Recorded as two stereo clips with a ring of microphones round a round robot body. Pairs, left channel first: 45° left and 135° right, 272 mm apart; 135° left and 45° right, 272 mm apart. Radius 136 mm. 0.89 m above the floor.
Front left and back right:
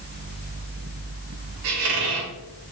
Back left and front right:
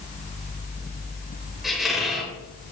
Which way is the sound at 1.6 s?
135° right.